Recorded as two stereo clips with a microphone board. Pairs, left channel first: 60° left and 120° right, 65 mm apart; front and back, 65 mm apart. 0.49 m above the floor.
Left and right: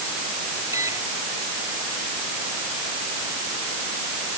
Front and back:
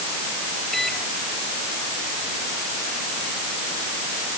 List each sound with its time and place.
0.7 s a microwave: 85° right